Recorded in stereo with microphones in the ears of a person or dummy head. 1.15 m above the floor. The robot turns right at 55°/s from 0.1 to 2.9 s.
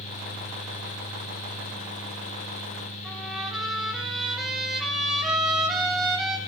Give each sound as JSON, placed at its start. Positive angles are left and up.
{"t": 3.0, "sound": "a trumpet", "side_deg": -5, "distance_m": 7.5}